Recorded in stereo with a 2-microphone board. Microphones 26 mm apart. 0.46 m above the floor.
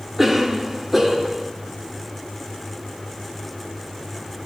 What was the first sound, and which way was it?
A cough, 10° right (ahead or behind).